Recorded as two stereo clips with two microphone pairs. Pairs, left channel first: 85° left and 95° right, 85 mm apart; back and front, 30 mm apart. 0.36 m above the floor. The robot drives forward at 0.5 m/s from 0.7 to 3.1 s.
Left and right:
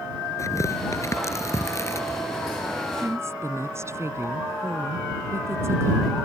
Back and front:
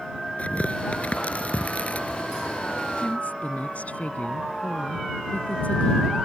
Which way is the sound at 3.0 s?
150° right.